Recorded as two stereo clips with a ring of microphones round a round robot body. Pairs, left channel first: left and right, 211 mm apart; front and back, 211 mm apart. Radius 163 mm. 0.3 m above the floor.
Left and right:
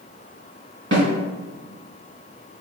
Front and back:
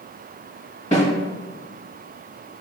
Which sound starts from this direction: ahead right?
A snare drum, at 0.9 s.